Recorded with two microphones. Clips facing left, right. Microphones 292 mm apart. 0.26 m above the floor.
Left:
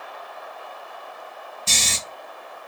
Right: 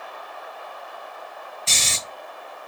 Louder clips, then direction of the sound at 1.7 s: Left 3 dB; 50° left (ahead or behind).